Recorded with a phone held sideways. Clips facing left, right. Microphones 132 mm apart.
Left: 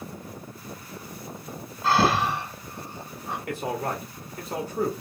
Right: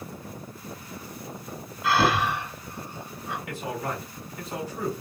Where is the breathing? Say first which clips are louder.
Left 1 dB; 35° left (ahead or behind), 2.5 m.